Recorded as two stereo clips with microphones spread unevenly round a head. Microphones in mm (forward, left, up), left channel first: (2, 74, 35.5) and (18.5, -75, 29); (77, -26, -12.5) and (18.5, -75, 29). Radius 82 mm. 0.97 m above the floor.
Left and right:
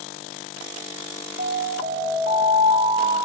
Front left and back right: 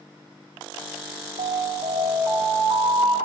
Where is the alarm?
140° right, 4 m.